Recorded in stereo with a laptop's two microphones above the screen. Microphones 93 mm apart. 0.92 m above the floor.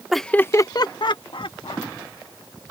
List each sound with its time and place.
0.1 s laughter: centre (ahead or behind); by 1.9 s 70° left (ahead or behind)